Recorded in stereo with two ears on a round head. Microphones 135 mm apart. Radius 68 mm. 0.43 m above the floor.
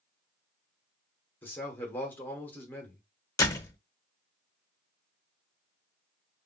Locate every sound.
1.4 s a man speaking: 15° left (ahead or behind), 0.9 m
3.4 s a door slam: 20° left (ahead or behind), 0.7 m